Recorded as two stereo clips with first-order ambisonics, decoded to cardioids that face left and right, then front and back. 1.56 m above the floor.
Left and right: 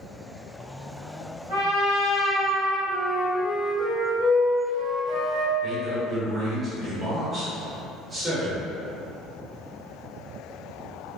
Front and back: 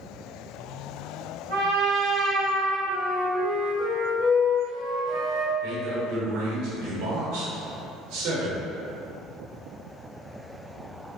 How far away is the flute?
About 1.7 m.